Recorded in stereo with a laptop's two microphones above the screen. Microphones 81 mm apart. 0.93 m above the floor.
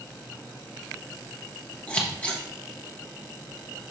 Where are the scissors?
15° left (ahead or behind), 1.0 m.